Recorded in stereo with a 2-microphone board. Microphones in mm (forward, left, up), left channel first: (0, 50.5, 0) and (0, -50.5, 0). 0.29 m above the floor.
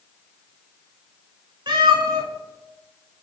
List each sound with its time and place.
1.7 s a cat meowing: 50° right (ahead or behind), 0.7 m